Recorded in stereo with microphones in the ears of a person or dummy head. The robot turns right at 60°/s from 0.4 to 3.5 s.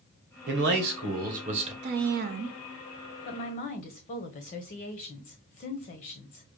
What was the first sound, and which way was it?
A man speaking, 115° right.